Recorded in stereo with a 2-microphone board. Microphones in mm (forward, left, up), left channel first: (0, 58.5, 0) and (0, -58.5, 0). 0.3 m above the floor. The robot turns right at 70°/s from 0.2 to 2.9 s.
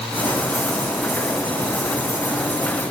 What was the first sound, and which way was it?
Only background noise.